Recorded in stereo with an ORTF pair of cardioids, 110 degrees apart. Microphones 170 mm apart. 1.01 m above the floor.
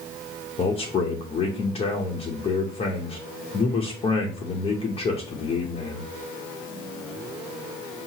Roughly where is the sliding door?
No sliding door in this recording.